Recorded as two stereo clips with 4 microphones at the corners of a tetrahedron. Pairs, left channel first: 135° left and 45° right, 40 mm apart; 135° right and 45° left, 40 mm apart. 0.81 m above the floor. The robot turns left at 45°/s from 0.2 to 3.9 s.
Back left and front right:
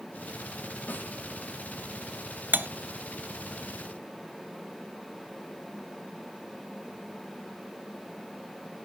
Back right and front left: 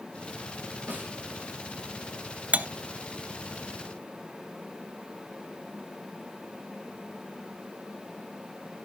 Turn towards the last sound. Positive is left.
turn(degrees=-65)